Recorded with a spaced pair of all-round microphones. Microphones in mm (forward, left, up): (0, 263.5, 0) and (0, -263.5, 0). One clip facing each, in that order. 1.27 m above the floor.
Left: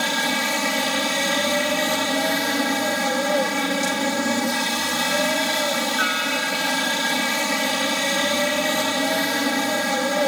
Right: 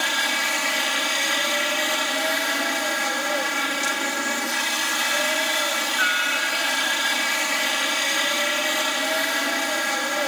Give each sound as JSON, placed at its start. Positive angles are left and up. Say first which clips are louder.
{"t": 0.0, "sound": "a helicopter", "louder": "left 7 dB", "side_deg": 60}